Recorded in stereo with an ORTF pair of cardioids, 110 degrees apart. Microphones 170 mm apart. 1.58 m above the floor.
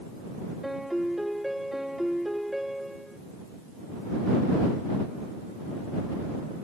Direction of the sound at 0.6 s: Straight ahead.